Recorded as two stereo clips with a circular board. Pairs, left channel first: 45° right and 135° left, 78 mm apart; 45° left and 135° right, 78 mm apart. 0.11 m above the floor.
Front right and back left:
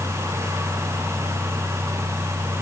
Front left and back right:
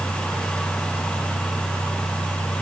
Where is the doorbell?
No doorbell in this recording.